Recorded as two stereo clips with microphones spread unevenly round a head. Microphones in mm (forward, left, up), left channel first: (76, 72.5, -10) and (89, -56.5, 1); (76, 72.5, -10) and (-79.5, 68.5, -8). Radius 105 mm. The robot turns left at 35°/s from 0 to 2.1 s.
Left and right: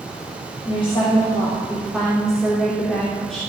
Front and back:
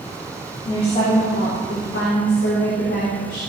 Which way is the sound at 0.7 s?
60° left.